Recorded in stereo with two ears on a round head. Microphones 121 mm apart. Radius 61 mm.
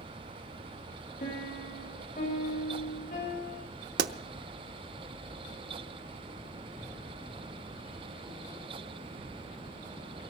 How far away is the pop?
About 0.8 m.